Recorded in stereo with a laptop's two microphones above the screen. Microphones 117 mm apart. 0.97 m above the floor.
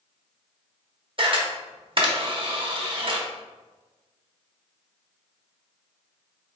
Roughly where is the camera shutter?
Right.